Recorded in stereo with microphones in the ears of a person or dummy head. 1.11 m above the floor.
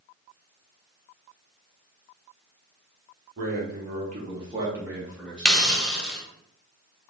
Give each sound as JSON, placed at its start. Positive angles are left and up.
{"t": 3.4, "sound": "a man speaking", "side_deg": -55, "distance_m": 1.7}
{"t": 5.5, "sound": "a hiss", "side_deg": 5, "distance_m": 0.7}